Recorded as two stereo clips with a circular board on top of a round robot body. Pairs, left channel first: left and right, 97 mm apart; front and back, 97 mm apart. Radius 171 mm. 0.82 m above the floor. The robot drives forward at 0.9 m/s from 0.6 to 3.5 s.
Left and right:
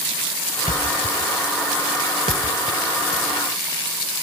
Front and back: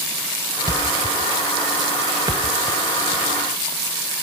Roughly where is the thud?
Ahead right.